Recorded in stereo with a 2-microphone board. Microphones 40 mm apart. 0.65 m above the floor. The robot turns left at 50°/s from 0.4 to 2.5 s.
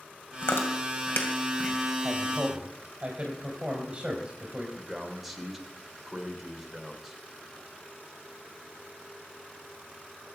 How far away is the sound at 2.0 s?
About 3.5 m.